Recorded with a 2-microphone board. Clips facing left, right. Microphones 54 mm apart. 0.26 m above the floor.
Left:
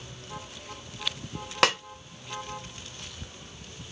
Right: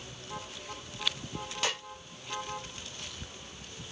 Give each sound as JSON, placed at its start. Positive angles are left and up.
{"t": 1.6, "sound": "a snare drum", "side_deg": 75, "distance_m": 0.7}